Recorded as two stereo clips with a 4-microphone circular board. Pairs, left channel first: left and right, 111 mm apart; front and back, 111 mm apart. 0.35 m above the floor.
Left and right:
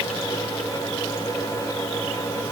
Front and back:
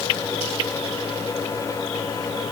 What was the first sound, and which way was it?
Only background noise.